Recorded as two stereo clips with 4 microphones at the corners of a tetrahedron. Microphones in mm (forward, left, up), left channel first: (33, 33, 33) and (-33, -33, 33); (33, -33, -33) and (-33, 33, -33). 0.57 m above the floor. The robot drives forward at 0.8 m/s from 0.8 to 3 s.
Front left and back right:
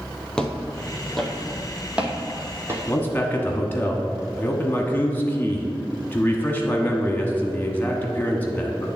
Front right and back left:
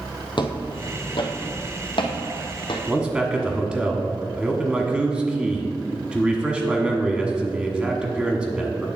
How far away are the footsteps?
About 0.9 m.